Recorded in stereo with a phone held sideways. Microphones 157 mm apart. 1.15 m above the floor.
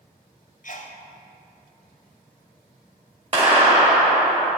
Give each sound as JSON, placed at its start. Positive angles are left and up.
{"t": 0.6, "sound": "a sneeze", "side_deg": 55, "distance_m": 0.9}
{"t": 3.3, "sound": "a clap", "side_deg": -40, "distance_m": 2.0}